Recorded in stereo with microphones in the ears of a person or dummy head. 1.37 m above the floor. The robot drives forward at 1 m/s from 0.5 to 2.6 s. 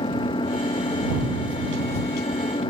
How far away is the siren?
No siren in this recording.